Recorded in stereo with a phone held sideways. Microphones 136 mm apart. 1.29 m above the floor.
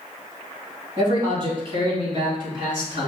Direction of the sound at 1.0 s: 35° right (ahead or behind).